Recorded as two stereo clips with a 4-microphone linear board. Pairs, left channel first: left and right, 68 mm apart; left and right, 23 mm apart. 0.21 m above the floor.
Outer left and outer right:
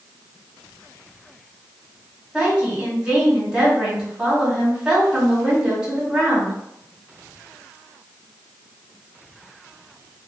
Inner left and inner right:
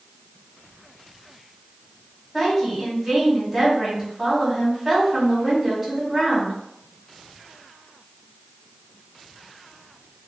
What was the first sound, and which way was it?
A woman speaking, 10° right (ahead or behind).